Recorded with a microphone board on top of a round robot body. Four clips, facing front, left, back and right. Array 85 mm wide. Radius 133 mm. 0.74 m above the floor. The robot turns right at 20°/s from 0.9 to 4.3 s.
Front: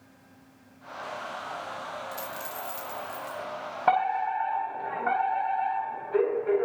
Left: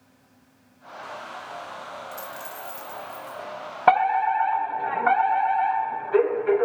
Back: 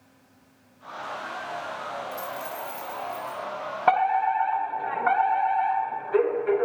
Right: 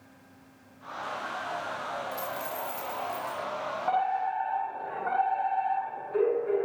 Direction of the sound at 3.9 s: 100° left.